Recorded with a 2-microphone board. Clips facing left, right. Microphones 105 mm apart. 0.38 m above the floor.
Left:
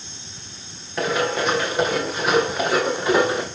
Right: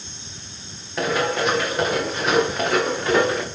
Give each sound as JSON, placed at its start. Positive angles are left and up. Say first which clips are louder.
{"t": 1.0, "sound": "running footsteps", "louder": "even", "side_deg": 0, "distance_m": 6.0}